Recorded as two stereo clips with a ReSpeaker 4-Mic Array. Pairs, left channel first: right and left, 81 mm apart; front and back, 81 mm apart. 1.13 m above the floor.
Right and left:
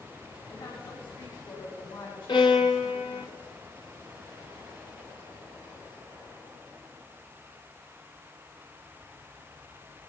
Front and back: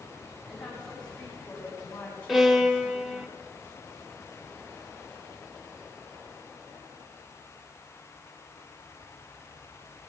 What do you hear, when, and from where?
0.5 s a woman speaking: 85° right, 10 m; by 3.3 s 65° right, 10.5 m
2.3 s a violin: 90° right, 1.9 m